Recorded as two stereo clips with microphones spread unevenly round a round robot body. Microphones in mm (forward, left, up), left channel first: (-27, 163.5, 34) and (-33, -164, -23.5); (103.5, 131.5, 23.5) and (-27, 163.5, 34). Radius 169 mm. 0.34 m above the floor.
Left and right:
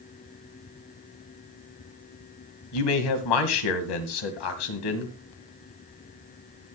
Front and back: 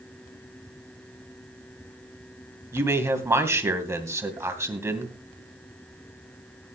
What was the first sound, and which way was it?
A man speaking, 95° left.